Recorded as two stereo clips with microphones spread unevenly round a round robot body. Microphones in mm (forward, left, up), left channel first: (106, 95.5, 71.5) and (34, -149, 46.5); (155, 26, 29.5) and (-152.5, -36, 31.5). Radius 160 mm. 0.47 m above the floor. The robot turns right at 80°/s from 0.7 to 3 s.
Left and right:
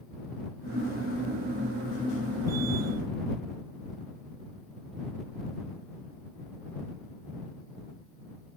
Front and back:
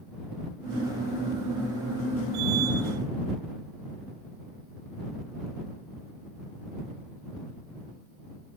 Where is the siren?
No siren in this recording.